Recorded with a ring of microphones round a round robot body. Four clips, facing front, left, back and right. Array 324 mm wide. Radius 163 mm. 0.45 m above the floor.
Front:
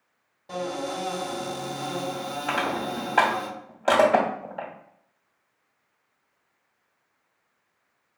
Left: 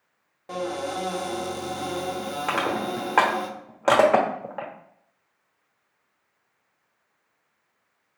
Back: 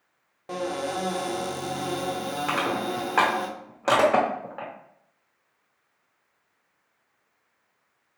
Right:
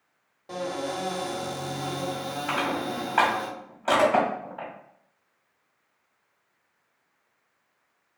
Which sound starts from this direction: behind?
A cupboard door, at 0.5 s.